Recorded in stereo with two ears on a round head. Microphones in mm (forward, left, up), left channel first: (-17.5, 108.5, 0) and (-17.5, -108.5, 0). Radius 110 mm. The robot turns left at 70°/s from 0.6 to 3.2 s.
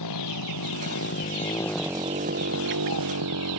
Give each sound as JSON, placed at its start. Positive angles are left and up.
{"t": 0.0, "sound": "a motorcycle", "side_deg": 85}